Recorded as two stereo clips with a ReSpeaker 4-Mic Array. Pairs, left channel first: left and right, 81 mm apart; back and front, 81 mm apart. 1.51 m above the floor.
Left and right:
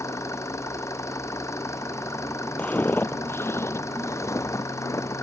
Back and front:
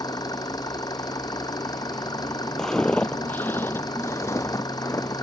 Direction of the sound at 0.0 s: 145° left.